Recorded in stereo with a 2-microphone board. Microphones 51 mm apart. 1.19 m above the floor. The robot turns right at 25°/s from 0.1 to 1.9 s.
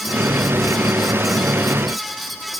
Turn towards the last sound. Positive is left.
No sound to turn to.